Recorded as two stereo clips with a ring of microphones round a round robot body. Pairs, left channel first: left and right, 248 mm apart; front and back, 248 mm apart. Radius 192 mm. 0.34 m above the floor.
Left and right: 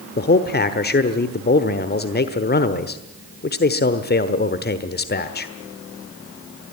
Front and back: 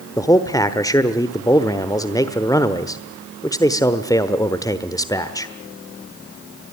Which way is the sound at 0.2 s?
70° left.